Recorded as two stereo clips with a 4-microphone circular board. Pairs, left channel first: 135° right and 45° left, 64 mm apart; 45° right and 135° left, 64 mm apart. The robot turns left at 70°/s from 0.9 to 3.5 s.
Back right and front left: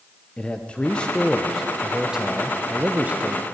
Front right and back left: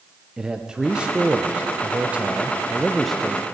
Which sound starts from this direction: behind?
A man speaking, at 0.4 s.